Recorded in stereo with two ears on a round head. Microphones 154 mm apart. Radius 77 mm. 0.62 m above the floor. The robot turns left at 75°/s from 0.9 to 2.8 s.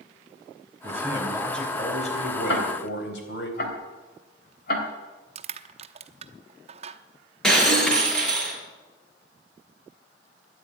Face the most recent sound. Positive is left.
turn(degrees=5)  # may be behind; listen again after turning